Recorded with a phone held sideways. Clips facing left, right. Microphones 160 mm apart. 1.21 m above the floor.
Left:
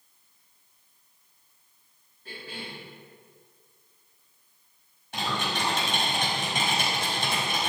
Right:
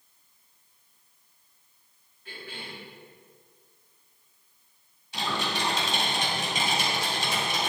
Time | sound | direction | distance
2.2 | a cough | 40° left (ahead or behind) | 3.5 m
5.1 | typing on a keyboard | 60° left (ahead or behind) | 3 m